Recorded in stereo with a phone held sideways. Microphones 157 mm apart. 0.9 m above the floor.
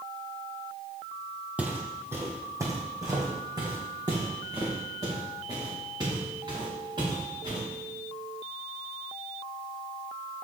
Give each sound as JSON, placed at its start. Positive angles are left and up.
{"t": 1.6, "sound": "footsteps", "side_deg": -10, "distance_m": 1.5}